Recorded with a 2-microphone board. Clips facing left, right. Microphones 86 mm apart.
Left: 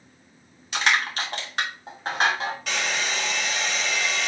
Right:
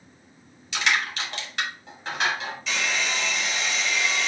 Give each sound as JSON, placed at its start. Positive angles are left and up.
{"t": 0.7, "sound": "crushing", "side_deg": 45, "distance_m": 1.9}
{"t": 2.7, "sound": "a hair dryer", "side_deg": 60, "distance_m": 2.0}